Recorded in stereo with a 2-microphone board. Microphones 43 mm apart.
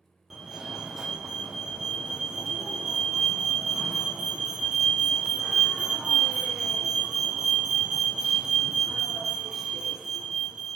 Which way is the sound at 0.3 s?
10° right (ahead or behind).